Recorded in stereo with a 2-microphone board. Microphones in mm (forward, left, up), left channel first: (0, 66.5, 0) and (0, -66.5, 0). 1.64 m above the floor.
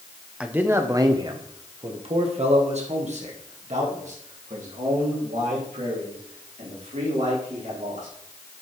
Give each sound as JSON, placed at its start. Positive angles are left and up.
{"t": 0.4, "sound": "a man speaking", "side_deg": -10, "distance_m": 1.0}